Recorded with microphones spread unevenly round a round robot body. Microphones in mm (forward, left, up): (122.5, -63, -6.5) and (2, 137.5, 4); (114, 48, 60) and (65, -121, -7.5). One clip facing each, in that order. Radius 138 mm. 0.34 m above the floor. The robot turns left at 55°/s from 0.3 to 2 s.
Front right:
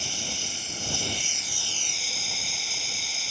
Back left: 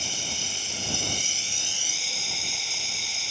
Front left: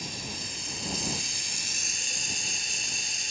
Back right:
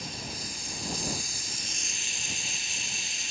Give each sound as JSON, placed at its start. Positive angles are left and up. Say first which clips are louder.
{"t": 0.0, "sound": "running water", "louder": "even, even", "azimuth_deg": 125}